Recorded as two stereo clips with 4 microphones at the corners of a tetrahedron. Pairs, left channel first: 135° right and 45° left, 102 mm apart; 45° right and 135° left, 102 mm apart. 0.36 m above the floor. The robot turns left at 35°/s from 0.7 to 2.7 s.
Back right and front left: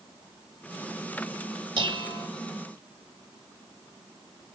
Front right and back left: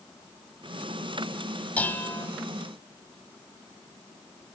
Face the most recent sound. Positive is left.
turn(degrees=-5)